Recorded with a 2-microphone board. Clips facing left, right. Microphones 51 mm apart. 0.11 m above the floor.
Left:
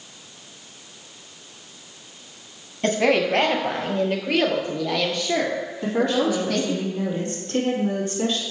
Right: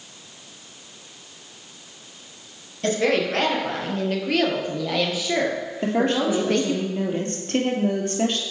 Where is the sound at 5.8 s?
45° right (ahead or behind), 2.5 m.